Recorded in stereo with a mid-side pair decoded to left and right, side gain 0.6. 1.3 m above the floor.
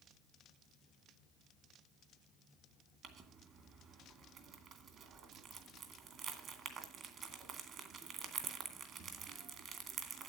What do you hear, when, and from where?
3.0 s crumpling: 50° right, 2.5 m